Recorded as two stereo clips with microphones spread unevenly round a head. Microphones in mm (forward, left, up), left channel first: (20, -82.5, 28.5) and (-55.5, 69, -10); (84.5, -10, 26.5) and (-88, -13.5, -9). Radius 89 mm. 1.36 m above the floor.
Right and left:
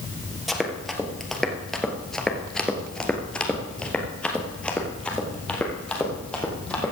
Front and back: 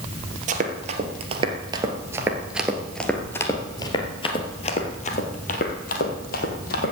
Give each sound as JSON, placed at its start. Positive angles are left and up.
{"t": 0.5, "sound": "running footsteps", "azimuth_deg": -140, "distance_m": 1.7}